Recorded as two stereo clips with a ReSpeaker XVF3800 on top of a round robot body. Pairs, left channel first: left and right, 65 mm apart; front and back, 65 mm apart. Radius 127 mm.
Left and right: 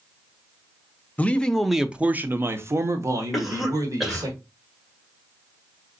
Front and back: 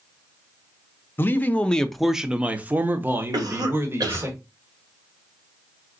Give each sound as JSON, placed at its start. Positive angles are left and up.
{"t": 1.2, "sound": "a man speaking", "azimuth_deg": 35, "distance_m": 0.9}
{"t": 3.3, "sound": "a cough", "azimuth_deg": 180, "distance_m": 2.0}